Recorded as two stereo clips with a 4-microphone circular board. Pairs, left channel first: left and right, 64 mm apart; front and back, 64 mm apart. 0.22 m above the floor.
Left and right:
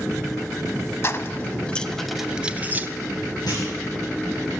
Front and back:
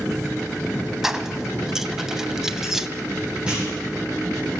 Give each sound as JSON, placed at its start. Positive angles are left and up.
{"t": 1.0, "sound": "keys jangling", "azimuth_deg": 100, "distance_m": 1.0}
{"t": 3.5, "sound": "a clunk", "azimuth_deg": 105, "distance_m": 9.5}